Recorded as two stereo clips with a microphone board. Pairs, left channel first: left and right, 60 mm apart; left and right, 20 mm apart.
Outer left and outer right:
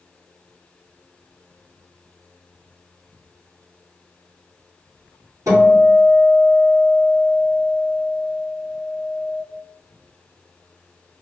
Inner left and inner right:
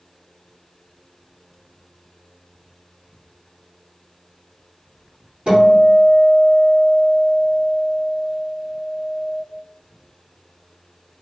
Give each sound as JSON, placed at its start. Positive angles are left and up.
{"t": 5.5, "sound": "a guitar", "side_deg": -70, "distance_m": 1.9}